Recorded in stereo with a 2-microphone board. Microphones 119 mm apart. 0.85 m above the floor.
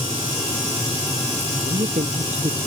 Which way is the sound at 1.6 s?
75° right (ahead or behind).